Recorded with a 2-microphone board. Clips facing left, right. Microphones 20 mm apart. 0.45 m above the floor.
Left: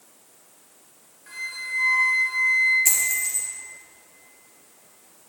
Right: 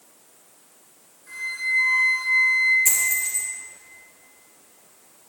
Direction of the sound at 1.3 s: 65° left (ahead or behind).